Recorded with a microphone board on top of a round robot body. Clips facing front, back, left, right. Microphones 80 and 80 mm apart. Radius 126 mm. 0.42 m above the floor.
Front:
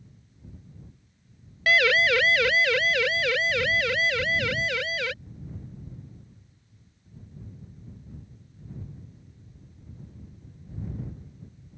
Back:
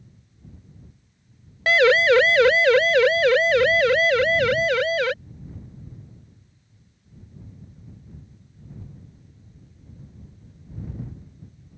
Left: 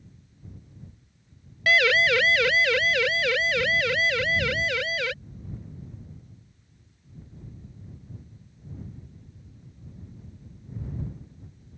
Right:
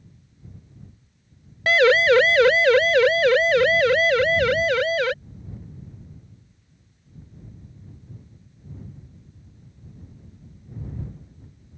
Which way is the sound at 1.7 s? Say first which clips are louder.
Back 6 dB, right 6 dB; 130° right.